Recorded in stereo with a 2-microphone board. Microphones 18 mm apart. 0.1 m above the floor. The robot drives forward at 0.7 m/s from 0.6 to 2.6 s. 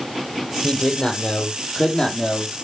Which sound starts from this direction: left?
A man speaking, at 0.6 s.